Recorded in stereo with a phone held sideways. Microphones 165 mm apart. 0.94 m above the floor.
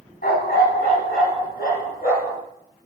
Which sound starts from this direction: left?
A dog barking, at 0.2 s.